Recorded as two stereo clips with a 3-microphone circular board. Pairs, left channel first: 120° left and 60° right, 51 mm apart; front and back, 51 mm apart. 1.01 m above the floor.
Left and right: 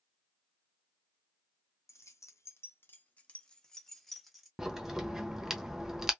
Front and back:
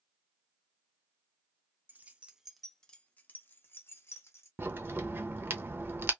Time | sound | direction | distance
1.9 | keys jangling | 130° left | 0.6 m
4.6 | a crack | 140° right | 0.7 m